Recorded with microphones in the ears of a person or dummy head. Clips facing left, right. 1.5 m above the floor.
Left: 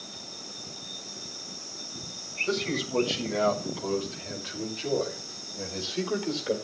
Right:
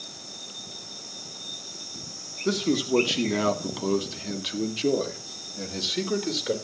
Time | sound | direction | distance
2.5 | a man speaking | 85° right | 3 m